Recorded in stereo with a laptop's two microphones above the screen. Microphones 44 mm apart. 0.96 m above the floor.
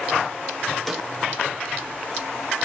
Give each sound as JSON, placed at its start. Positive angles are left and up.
{"t": 0.9, "sound": "a snare drum", "side_deg": 5, "distance_m": 1.5}